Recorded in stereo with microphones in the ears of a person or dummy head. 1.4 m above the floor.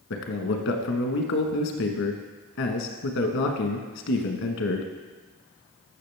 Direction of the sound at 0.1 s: 65° left (ahead or behind).